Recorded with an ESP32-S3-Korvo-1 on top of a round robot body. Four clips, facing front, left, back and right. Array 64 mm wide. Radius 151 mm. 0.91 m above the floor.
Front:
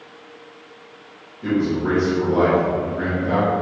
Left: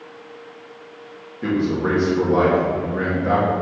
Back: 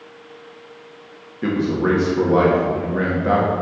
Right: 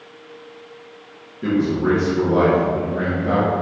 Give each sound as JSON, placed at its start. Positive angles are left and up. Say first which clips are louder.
{"t": 1.4, "sound": "a man speaking", "louder": "right 2 dB, back 1 dB", "azimuth_deg": 165, "distance_m": 1.6}